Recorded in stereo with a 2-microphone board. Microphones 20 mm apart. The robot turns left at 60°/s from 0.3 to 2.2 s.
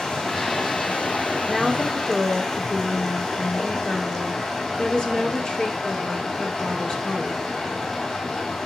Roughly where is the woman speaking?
Behind.